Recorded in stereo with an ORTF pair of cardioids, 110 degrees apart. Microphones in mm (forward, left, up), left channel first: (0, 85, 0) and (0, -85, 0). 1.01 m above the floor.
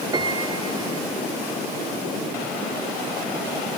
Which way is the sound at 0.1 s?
25° right.